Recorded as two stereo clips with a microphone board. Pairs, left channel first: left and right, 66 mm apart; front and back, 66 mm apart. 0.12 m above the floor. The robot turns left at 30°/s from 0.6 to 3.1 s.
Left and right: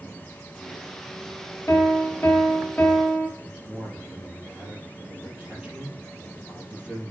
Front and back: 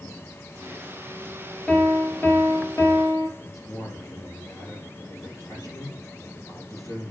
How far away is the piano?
About 1.6 m.